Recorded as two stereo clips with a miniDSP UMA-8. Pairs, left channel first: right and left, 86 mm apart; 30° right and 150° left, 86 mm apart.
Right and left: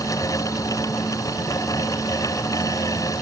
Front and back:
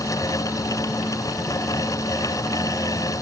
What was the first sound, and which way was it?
Only background noise.